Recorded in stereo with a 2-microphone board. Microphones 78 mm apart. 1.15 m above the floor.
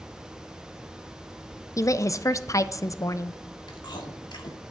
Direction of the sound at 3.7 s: 75° left (ahead or behind).